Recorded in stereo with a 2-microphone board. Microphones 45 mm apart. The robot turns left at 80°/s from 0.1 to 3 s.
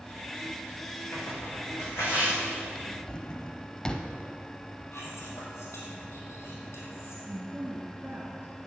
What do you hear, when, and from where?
1.1 s tearing paper: 50° left (ahead or behind), 4 m; by 2.4 s 30° left (ahead or behind), 4 m
2.8 s a drawer: 5° right (ahead or behind), 0.9 m; by 4.1 s 15° left (ahead or behind), 0.9 m
4.9 s whispering: 60° left (ahead or behind), 4.5 m
7.2 s a woman speaking: 45° right (ahead or behind), 1.5 m